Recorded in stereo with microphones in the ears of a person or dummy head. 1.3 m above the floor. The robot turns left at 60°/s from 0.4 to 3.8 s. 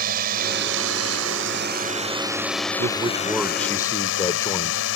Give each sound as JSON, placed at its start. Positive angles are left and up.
{"t": 0.0, "sound": "a drone", "azimuth_deg": -55}
{"t": 2.8, "sound": "a man speaking", "azimuth_deg": -145}